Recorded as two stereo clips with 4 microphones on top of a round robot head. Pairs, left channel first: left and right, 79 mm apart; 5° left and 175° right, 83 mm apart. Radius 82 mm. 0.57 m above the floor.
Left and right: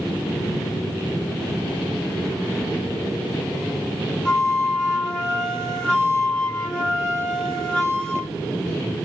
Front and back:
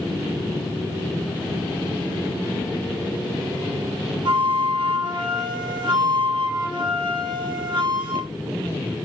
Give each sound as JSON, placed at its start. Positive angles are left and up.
{"t": 4.2, "sound": "a flute", "azimuth_deg": 170, "distance_m": 0.9}